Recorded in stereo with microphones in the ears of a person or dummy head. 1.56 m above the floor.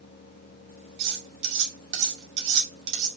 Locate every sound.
1.0 s cutlery clinking: 60° right (ahead or behind), 1.4 m